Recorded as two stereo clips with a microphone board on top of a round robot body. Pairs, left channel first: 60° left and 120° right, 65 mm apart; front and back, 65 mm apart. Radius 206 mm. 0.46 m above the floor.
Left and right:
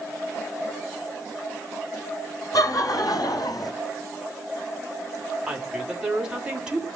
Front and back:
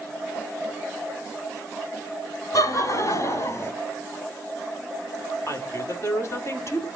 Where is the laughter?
35° left, 3 m; by 3.7 s 50° left, 2.5 m.